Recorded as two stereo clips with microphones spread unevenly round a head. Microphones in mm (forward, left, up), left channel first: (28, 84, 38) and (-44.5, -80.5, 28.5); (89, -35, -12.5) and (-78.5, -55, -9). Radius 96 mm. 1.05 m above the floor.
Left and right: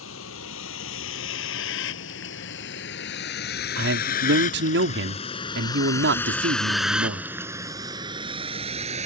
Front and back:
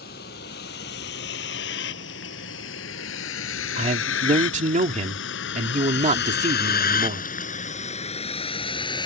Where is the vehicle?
50° left; by 9.1 s 60° right.